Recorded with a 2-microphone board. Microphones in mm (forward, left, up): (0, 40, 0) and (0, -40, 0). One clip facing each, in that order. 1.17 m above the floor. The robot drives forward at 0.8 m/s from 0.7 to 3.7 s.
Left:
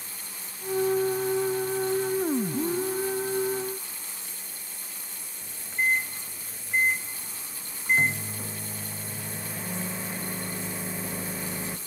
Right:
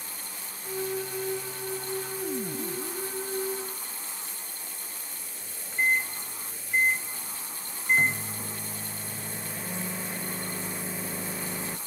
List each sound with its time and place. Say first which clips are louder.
5.4 s a microwave: even; centre (ahead or behind), 0.8 m